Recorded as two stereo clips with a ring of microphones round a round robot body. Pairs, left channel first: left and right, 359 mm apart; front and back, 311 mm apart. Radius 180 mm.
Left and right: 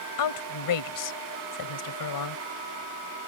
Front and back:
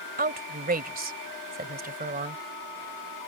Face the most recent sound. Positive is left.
turn(degrees=120)